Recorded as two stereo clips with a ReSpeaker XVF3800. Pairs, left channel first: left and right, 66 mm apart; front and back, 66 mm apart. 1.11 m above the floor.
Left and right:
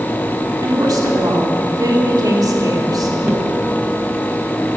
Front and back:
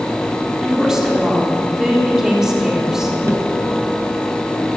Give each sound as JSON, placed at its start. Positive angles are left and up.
{"t": 0.6, "sound": "a woman speaking", "azimuth_deg": -95, "distance_m": 3.5}
{"t": 3.2, "sound": "tapping", "azimuth_deg": -140, "distance_m": 1.8}